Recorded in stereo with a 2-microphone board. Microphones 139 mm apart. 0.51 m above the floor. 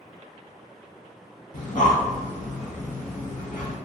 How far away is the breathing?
About 1.7 m.